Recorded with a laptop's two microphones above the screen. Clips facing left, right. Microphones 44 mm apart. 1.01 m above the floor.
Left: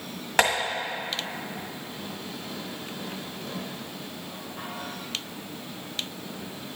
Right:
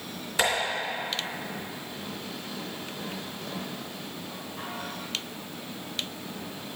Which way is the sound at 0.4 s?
65° left (ahead or behind).